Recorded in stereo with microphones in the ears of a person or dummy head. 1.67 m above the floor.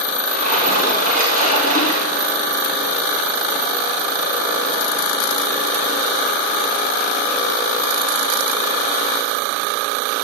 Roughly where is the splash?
Right.